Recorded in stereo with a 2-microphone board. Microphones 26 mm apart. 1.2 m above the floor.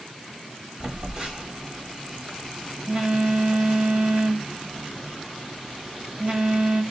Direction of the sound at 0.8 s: 25° right (ahead or behind).